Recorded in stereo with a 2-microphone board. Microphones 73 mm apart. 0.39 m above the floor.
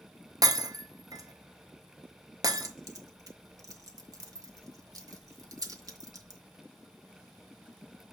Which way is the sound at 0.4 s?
65° right (ahead or behind).